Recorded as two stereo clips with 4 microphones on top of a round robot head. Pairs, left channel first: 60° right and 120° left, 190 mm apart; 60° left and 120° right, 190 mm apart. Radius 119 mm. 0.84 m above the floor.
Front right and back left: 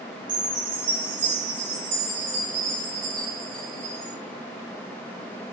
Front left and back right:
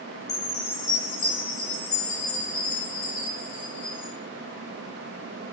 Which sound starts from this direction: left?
A chime, at 0.3 s.